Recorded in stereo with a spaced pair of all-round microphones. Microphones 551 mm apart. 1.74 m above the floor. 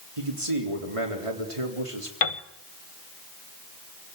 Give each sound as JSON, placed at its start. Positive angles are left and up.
{"t": 0.2, "sound": "a man speaking", "side_deg": -70, "distance_m": 4.0}
{"t": 2.2, "sound": "a piano", "side_deg": 70, "distance_m": 1.4}